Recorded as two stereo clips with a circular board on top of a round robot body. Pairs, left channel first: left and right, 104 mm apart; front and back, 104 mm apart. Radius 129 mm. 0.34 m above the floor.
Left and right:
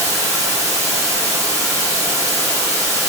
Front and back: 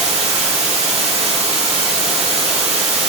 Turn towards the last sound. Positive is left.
turn(degrees=-150)